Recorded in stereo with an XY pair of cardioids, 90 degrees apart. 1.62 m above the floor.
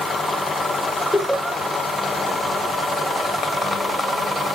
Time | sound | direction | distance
1.1 | laughter | straight ahead | 1.0 m